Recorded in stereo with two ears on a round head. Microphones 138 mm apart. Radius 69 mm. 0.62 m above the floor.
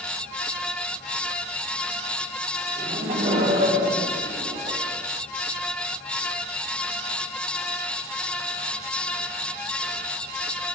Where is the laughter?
35° right (ahead or behind), 3.5 m.